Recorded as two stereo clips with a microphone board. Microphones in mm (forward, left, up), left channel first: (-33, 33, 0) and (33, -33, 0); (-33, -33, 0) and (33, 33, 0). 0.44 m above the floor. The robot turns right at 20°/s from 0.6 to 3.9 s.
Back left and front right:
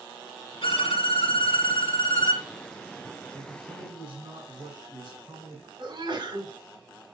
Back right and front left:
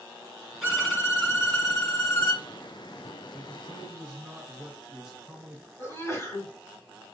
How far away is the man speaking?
About 2 m.